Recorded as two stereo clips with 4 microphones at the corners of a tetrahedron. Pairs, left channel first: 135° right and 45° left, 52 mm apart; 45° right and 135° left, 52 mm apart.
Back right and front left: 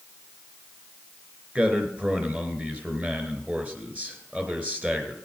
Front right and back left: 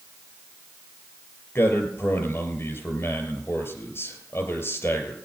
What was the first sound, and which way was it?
A man speaking, 15° right.